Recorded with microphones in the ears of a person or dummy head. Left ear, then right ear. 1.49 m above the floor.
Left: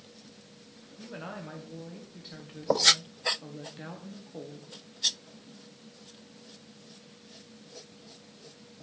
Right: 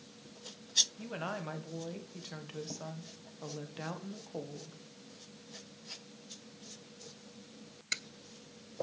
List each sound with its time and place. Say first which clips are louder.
1.0 s a woman speaking: right 2 dB; 40° right (ahead or behind), 1.2 m